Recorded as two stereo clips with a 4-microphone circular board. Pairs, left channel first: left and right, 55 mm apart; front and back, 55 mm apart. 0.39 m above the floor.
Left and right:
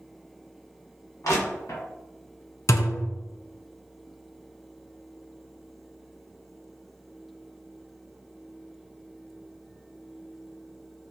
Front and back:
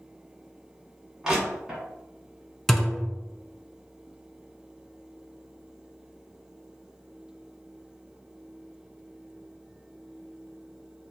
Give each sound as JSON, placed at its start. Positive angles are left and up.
{"t": 1.2, "sound": "crushing", "azimuth_deg": 100, "distance_m": 1.6}
{"t": 2.7, "sound": "a thud", "azimuth_deg": 85, "distance_m": 0.6}